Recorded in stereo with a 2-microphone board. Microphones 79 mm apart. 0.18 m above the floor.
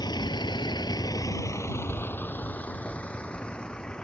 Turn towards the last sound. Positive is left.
turn(degrees=10)  # may be behind; listen again after turning